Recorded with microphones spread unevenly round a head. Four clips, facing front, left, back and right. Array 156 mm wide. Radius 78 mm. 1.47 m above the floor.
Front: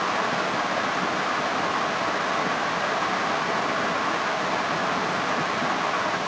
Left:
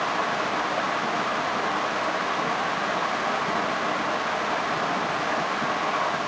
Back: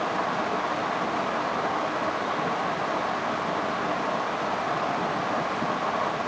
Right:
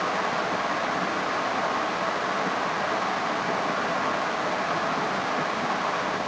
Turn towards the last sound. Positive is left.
No sound to turn to.